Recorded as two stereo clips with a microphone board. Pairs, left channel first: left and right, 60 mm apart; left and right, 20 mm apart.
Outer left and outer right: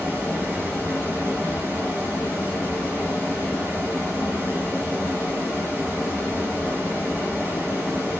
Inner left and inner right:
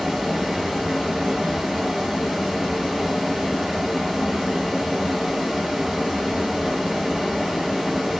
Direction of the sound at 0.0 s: 30° right (ahead or behind).